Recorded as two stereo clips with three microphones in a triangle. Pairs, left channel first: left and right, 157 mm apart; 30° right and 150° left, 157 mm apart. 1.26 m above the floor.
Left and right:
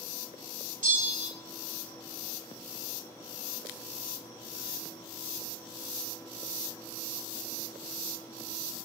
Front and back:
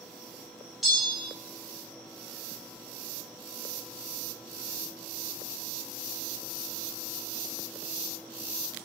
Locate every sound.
0.8 s a bell: 120° right, 0.8 m